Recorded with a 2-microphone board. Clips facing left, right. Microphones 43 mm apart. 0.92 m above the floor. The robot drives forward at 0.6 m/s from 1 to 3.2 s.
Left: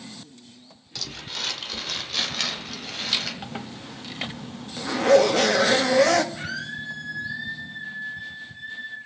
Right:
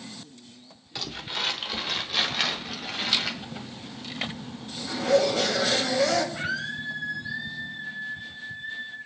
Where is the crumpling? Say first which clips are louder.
Right 2 dB; 20° right (ahead or behind), 1.3 m; by 3.3 s 10° right (ahead or behind), 2.5 m.